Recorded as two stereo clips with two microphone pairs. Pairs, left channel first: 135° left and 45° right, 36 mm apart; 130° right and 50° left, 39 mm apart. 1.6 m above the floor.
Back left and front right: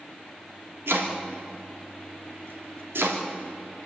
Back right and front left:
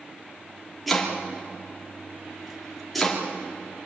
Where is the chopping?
40° right, 3 m.